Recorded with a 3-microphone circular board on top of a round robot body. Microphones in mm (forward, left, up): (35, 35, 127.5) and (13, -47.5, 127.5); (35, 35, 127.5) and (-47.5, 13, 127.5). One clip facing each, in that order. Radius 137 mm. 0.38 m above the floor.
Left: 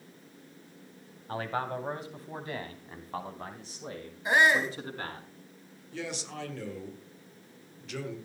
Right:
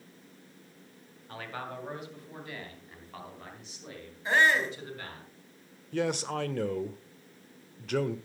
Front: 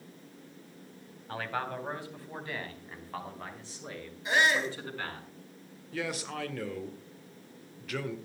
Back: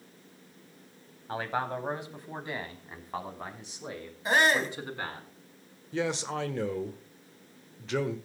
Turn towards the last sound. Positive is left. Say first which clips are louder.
# right 8 dB, back 5 dB
turn(degrees=-105)